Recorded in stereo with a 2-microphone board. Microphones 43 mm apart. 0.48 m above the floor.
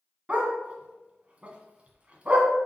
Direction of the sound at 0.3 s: 30° right (ahead or behind).